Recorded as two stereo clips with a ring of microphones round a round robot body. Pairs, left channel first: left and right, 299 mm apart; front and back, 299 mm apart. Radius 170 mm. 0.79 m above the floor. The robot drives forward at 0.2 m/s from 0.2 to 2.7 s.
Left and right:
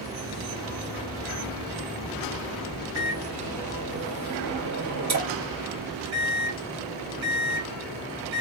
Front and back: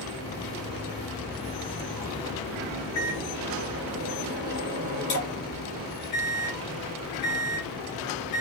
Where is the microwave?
60° right, 1.9 m.